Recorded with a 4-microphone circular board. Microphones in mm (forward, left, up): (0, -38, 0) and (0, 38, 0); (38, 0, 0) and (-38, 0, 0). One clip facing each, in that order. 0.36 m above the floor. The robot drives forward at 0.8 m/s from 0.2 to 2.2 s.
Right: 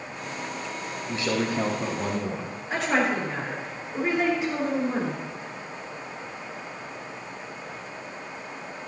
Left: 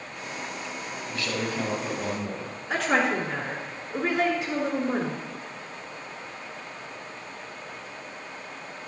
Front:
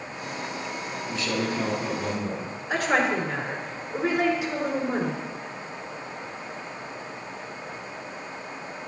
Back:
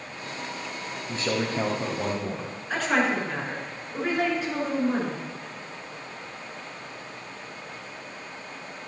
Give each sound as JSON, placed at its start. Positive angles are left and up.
{"t": 1.1, "sound": "a man speaking", "azimuth_deg": -145, "distance_m": 1.4}
{"t": 2.7, "sound": "a woman speaking", "azimuth_deg": 80, "distance_m": 4.0}